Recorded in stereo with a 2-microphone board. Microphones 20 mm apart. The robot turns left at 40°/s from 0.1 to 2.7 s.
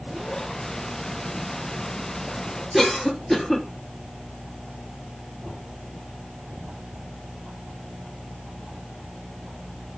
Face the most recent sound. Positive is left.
turn(degrees=20)  # may be behind; listen again after turning